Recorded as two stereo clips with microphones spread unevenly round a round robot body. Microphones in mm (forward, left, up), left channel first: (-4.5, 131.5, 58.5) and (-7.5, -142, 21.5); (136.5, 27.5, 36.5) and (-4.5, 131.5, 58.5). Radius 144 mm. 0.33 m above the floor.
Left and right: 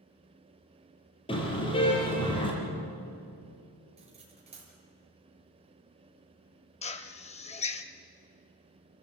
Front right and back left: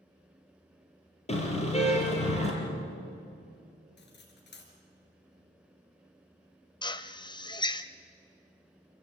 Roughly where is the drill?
Ahead.